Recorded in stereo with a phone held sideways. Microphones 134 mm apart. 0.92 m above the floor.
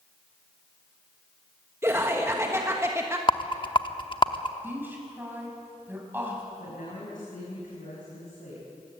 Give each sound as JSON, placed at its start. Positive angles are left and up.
{"t": 1.8, "sound": "laughter", "side_deg": -20, "distance_m": 1.3}
{"t": 3.3, "sound": "a rattle", "side_deg": 40, "distance_m": 1.0}
{"t": 4.6, "sound": "a woman speaking", "side_deg": -15, "distance_m": 6.0}
{"t": 6.6, "sound": "a woman speaking", "side_deg": 85, "distance_m": 6.0}